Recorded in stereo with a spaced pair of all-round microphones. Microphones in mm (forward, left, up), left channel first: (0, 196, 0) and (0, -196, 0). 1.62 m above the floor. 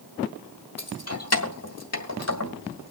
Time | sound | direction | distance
0.8 | keys jangling | 40° left (ahead or behind) | 1.5 m